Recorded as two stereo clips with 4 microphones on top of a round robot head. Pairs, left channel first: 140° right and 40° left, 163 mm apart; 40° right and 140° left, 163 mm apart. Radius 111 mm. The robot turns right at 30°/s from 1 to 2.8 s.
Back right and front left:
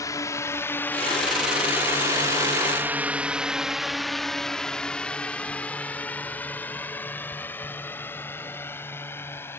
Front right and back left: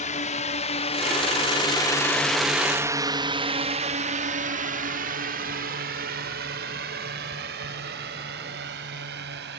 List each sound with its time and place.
0.0 s a drone: 75° right; by 9.6 s 145° left